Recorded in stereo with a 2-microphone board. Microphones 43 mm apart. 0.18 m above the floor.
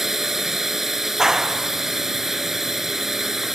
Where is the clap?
10° right (ahead or behind).